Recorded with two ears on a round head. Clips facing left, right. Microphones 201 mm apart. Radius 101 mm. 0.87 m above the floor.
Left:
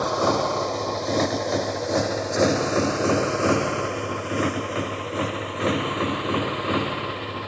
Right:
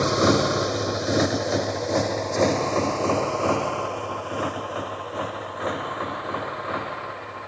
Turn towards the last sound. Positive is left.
turn(degrees=45)  # may be behind; listen again after turning